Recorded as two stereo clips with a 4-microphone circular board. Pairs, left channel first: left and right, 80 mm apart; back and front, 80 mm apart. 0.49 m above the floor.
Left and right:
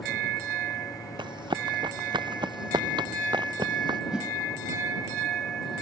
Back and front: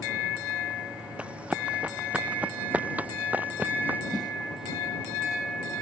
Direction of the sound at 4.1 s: 10° right.